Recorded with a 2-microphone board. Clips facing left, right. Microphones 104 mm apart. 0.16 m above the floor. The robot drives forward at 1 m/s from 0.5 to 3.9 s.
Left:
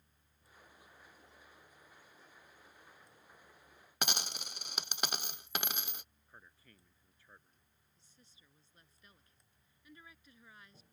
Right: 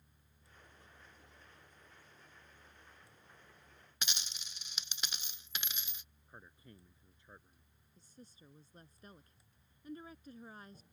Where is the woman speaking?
40° right (ahead or behind).